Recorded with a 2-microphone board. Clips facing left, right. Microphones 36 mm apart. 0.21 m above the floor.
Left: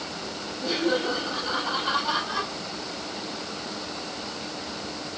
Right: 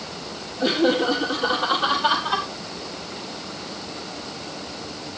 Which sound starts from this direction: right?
Laughter, at 0.6 s.